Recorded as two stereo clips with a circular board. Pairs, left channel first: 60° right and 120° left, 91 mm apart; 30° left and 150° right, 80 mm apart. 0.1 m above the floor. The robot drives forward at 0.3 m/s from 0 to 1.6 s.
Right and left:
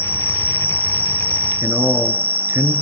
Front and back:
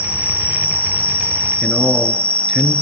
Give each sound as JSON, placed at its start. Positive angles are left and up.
{"t": 0.0, "sound": "an insect", "azimuth_deg": -10, "distance_m": 2.0}
{"t": 1.6, "sound": "a man speaking", "azimuth_deg": 120, "distance_m": 1.3}